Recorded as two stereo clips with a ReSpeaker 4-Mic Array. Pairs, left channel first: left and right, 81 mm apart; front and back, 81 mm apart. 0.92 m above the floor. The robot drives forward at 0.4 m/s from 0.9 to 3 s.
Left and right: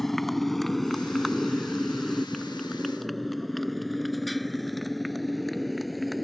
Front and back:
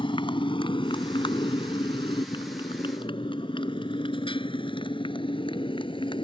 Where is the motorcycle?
Straight ahead.